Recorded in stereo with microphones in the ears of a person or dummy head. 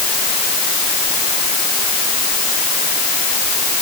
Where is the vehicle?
I don't hear a vehicle.